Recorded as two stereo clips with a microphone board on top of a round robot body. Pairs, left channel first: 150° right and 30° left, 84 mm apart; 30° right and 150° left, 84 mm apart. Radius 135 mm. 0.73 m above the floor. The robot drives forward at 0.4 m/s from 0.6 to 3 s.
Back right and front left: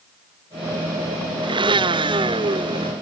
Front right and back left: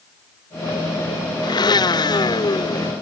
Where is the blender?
5° left; by 2.9 s 10° left.